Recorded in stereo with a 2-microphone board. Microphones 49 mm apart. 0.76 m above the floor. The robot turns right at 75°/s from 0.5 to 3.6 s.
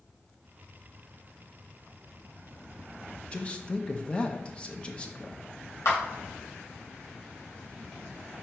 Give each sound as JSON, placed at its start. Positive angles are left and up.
{"t": 3.3, "sound": "a man speaking", "side_deg": 25, "distance_m": 0.8}
{"t": 5.8, "sound": "a clap", "side_deg": 85, "distance_m": 3.0}